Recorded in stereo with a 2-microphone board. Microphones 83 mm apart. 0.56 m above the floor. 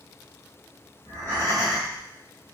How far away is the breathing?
About 1.9 m.